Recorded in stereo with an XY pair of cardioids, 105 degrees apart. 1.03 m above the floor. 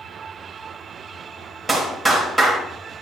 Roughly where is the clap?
Ahead.